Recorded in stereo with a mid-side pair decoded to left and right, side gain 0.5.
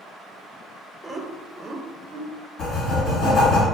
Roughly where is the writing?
Left.